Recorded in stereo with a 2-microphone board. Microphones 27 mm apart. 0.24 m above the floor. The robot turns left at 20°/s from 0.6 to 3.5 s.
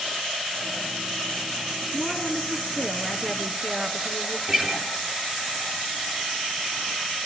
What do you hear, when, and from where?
1.9 s a woman speaking: 5° left, 3 m; by 4.4 s 30° right, 3 m
4.5 s a guitar: 35° right (ahead or behind), 3.5 m